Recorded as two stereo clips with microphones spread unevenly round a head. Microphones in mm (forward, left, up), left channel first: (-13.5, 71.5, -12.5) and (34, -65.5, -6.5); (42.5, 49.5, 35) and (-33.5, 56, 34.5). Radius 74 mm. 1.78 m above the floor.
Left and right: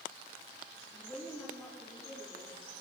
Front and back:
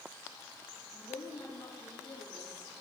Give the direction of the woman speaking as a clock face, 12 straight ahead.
11 o'clock.